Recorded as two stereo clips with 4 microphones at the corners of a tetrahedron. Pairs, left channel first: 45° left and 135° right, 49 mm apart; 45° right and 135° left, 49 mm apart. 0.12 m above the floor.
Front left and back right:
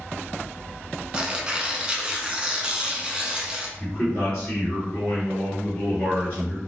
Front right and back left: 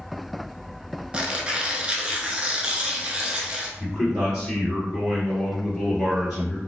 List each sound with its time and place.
1.1 s tearing paper: straight behind, 0.5 m
3.8 s a man speaking: 50° left, 2.0 m